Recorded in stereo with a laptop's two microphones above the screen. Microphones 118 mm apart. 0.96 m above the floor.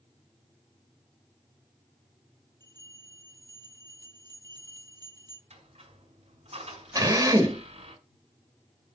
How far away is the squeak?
About 4 m.